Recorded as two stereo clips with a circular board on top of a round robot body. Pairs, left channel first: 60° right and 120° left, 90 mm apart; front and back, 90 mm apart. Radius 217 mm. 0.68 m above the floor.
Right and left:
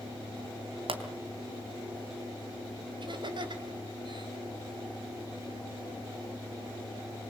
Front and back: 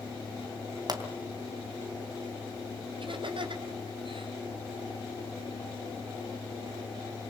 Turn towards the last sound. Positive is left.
turn(degrees=155)